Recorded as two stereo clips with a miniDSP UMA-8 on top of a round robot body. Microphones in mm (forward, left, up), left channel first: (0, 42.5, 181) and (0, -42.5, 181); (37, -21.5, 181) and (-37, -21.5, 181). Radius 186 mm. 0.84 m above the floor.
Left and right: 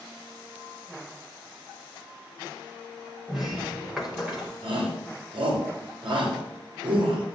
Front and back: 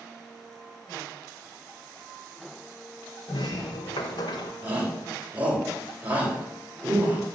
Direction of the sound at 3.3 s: 5° right.